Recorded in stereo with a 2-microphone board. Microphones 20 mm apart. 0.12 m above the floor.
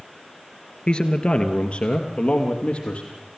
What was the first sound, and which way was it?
A man speaking, 45° left (ahead or behind).